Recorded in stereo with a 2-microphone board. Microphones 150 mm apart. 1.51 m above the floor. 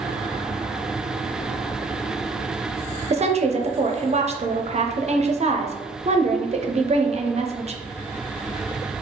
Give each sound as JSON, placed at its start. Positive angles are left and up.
{"t": 3.1, "sound": "a woman speaking", "side_deg": -45, "distance_m": 0.5}